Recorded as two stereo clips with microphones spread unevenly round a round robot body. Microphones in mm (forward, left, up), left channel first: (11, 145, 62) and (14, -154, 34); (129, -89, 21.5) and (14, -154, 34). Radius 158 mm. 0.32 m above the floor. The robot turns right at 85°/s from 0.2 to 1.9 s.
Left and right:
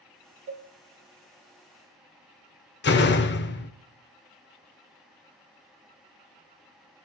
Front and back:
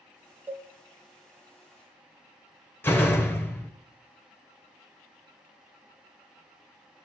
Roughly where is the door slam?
Left.